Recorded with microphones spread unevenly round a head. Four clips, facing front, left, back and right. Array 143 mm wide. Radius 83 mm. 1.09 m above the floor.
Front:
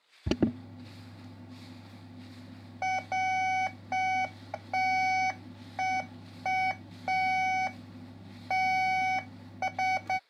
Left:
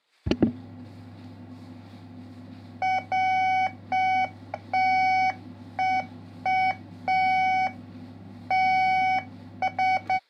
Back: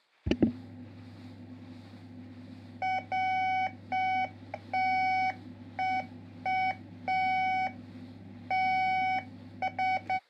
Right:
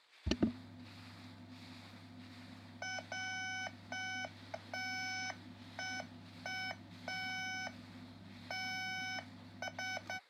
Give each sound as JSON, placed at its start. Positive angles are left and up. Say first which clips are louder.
{"t": 0.3, "sound": "an alarm", "louder": "left 12 dB, back 1 dB", "azimuth_deg": 110}